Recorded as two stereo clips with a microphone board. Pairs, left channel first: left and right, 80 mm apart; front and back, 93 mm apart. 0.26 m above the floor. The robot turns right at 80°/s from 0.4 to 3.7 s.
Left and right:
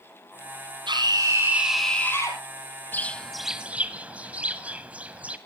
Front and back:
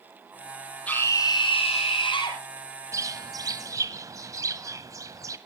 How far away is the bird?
About 1.3 m.